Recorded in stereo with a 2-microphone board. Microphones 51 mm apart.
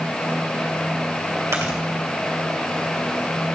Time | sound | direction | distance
1.5 | chewing | 80° right | 2.5 m